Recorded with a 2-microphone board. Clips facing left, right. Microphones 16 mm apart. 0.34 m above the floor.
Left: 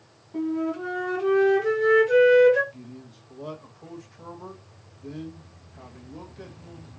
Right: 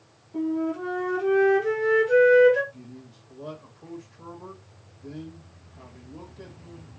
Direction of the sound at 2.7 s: 30° left (ahead or behind).